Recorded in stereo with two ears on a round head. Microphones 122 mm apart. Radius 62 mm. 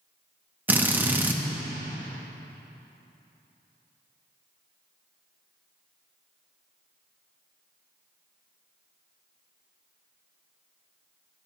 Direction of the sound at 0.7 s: 15° right (ahead or behind).